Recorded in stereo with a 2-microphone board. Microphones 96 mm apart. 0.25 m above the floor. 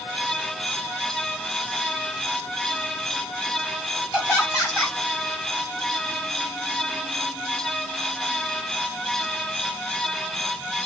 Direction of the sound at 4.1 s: 5° right (ahead or behind).